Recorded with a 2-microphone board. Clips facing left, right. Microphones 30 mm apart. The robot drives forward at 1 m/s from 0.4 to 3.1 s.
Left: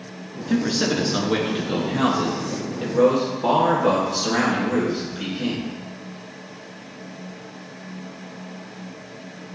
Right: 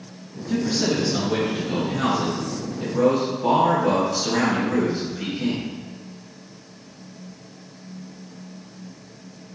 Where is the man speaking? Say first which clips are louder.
Left 1 dB; 40° left (ahead or behind), 1.5 m; by 5.6 s 20° left (ahead or behind), 3 m.